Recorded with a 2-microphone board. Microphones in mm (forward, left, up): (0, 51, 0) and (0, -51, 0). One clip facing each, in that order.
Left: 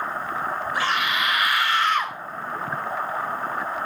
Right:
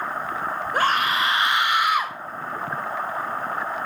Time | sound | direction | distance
0.7 | a scream | 50° right (ahead or behind) | 1.9 m